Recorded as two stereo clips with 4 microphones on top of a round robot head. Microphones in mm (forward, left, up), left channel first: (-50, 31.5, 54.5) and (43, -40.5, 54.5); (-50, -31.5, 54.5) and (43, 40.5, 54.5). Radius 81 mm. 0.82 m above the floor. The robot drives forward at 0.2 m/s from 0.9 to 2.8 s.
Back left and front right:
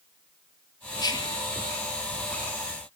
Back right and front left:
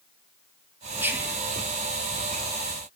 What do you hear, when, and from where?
1.0 s whispering: 105° left, 1.2 m; by 1.4 s 110° left, 1.2 m